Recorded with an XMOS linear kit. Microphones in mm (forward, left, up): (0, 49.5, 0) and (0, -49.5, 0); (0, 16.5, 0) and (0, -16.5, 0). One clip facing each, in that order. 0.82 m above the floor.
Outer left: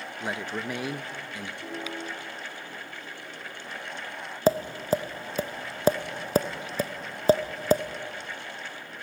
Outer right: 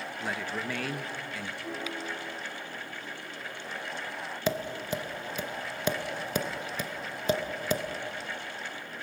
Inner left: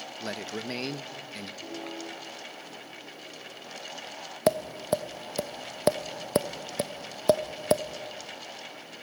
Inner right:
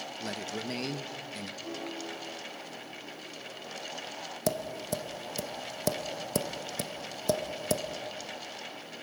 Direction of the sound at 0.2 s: 20° left (ahead or behind).